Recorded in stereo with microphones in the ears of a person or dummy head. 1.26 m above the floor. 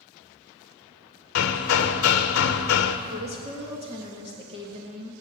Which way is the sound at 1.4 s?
65° left (ahead or behind).